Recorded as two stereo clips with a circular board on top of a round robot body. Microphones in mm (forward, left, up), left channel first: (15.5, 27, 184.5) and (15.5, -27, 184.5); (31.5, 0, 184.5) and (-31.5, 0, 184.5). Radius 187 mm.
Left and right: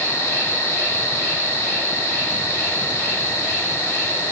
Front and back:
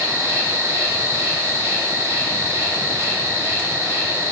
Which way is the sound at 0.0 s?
130° left.